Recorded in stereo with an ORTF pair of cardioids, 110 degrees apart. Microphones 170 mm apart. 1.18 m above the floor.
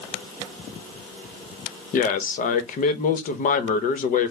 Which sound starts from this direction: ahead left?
A man speaking, at 1.9 s.